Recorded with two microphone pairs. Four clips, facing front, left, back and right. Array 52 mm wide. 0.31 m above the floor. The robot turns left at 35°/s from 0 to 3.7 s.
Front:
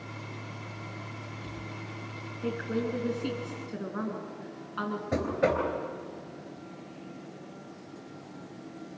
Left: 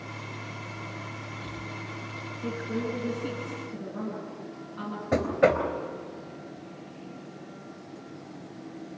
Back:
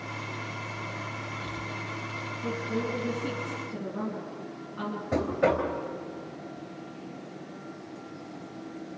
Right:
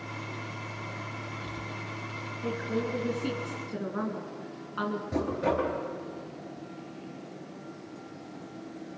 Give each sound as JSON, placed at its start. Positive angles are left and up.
{"t": 2.4, "sound": "a woman speaking", "azimuth_deg": 0, "distance_m": 4.0}
{"t": 5.1, "sound": "knocking", "azimuth_deg": 95, "distance_m": 3.0}